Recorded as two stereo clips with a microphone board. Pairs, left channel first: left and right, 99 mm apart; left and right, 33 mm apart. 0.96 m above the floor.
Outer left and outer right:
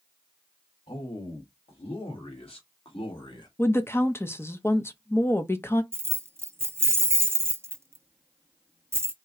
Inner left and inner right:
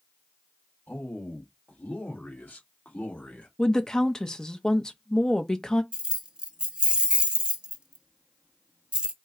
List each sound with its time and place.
0.9 s a man speaking: 75° left (ahead or behind), 2 m; by 3.5 s 45° left (ahead or behind), 1.3 m
3.6 s a woman speaking: 25° left (ahead or behind), 0.6 m
5.9 s keys jangling: 30° right (ahead or behind), 0.5 m